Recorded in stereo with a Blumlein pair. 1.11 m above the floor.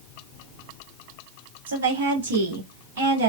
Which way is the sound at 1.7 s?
60° right.